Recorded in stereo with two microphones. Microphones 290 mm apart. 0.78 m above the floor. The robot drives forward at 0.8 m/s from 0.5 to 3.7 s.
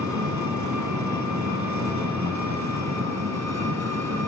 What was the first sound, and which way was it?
An engine running, 85° right.